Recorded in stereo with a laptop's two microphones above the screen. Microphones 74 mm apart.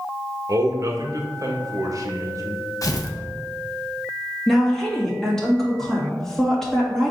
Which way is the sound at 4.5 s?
5° left (ahead or behind).